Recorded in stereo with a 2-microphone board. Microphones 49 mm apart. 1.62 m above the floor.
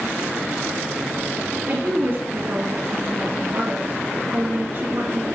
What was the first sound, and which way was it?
A woman speaking, 50° right (ahead or behind).